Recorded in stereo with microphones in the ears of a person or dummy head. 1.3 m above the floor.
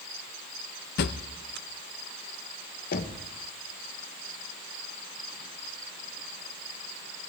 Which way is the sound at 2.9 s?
45° left (ahead or behind).